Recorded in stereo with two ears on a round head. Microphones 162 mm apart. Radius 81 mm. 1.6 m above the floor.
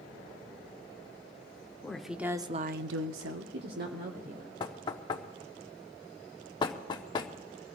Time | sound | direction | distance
1.8 | a woman speaking | 5° left (ahead or behind) | 1.0 m
4.6 | knocking | 25° left (ahead or behind) | 0.9 m